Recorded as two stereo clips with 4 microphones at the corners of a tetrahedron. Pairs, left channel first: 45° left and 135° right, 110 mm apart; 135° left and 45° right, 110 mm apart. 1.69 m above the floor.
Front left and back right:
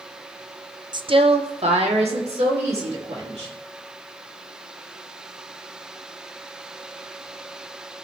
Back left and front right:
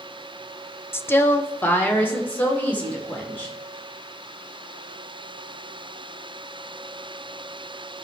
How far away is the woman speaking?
About 0.5 m.